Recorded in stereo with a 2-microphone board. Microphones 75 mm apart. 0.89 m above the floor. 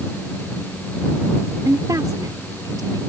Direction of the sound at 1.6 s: 50° right (ahead or behind).